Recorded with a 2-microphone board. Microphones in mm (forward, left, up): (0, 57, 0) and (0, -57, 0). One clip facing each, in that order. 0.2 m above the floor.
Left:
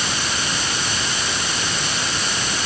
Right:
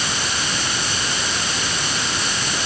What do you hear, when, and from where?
Only background noise.